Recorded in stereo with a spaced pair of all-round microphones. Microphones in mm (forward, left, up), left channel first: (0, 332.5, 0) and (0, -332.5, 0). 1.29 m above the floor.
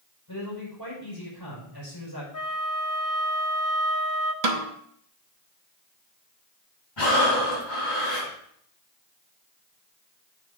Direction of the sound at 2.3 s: 30° left (ahead or behind).